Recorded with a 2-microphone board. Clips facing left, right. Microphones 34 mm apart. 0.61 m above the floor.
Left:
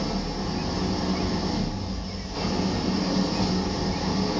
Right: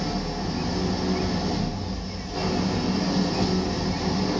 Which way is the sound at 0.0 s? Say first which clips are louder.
Right 1 dB; 50° right (ahead or behind).